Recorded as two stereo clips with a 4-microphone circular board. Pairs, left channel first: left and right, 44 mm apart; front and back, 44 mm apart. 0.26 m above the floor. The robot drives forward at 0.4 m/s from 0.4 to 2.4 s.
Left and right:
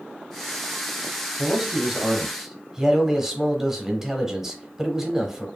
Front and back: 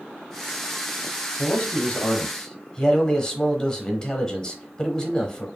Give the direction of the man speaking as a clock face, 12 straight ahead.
1 o'clock.